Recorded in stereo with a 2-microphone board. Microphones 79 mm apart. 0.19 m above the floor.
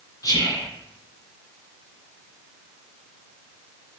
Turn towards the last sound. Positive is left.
turn(degrees=45)  # may be behind; listen again after turning